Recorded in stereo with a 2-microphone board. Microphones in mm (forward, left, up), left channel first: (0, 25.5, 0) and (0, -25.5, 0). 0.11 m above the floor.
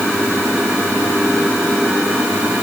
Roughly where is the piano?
I don't hear a piano.